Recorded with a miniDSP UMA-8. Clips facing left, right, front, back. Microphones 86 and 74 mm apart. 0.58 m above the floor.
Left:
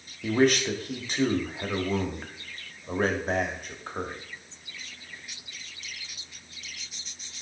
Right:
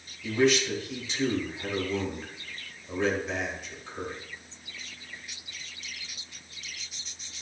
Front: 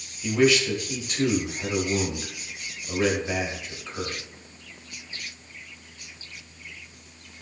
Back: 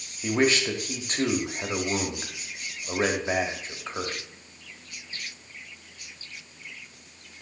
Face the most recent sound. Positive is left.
turn(degrees=130)